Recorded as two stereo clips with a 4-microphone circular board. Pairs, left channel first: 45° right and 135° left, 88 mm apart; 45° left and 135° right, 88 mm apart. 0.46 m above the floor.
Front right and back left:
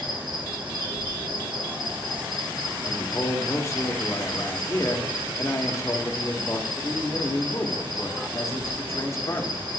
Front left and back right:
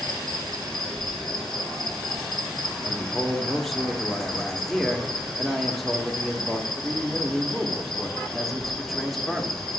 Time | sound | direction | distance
0.0 | an insect | 130° left | 1.7 m
2.8 | a man speaking | 45° right | 0.9 m